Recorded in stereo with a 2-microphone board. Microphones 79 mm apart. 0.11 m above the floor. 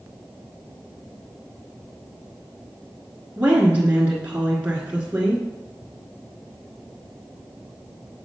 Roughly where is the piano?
No piano in this recording.